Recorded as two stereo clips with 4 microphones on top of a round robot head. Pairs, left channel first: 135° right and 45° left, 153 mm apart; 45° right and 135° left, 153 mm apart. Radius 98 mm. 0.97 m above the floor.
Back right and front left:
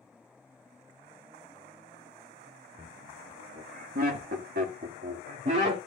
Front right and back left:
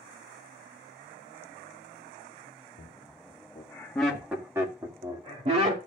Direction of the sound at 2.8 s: Straight ahead.